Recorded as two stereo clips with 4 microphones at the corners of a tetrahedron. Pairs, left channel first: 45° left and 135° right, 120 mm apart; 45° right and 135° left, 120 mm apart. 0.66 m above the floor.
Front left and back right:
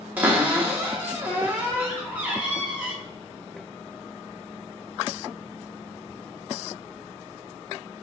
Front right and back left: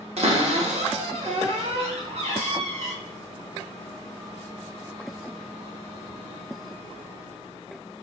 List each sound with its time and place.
0.2 s a cupboard door: 150° left, 0.8 m